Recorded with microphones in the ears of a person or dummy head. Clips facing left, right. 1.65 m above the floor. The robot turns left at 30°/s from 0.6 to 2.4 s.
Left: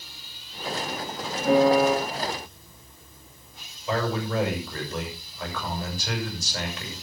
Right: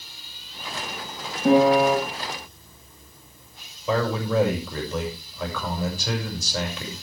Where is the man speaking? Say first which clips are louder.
Right 3 dB; 75° right (ahead or behind), 7 m.